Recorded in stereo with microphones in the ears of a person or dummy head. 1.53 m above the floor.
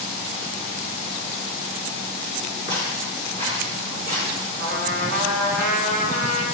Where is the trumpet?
65° right (ahead or behind), 2 m.